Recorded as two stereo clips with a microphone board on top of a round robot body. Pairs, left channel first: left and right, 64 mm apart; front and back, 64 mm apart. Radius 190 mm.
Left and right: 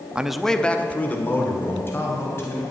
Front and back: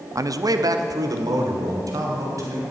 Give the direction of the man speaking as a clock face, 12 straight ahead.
5 o'clock.